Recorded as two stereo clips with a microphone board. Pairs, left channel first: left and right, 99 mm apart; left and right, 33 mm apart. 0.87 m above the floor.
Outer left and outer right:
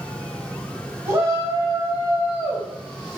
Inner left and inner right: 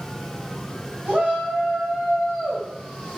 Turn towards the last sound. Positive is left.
turn(degrees=-10)  # may be behind; listen again after turning